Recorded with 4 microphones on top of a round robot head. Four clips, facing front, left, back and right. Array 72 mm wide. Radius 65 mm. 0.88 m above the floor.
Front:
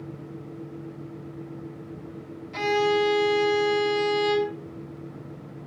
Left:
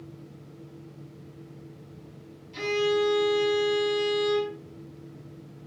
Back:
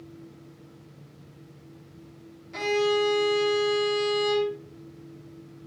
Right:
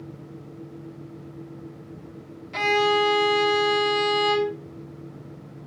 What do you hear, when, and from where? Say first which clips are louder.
2.5 s a violin: right 5 dB, front 2 dB; 90° right, 5.5 m